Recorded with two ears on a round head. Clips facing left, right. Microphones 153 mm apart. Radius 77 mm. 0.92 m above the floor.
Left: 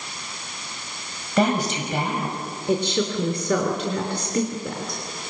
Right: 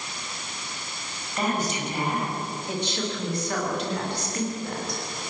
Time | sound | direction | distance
1.4 | a woman speaking | 55° left (ahead or behind) | 6 m
2.7 | a woman speaking | 70° left (ahead or behind) | 3 m